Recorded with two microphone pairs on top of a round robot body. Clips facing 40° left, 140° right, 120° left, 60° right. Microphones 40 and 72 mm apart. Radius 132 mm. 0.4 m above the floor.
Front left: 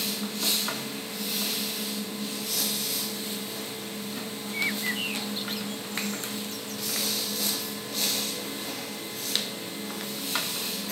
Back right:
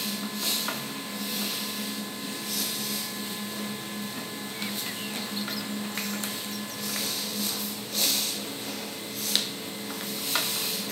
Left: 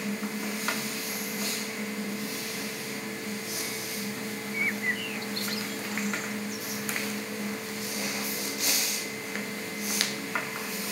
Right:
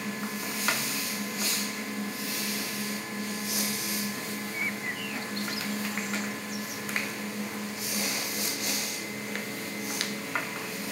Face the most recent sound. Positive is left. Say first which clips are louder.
# front left 8 dB, left 6 dB
turn(degrees=80)